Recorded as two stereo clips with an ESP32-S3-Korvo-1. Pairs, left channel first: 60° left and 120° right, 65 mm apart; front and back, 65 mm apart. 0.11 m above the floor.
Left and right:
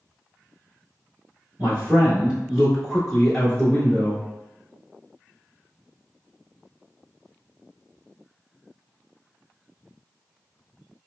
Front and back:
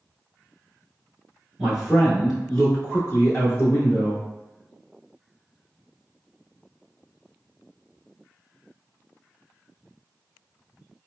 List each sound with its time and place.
1.6 s a man speaking: 105° right, 1.3 m; by 4.2 s 10° left, 1.4 m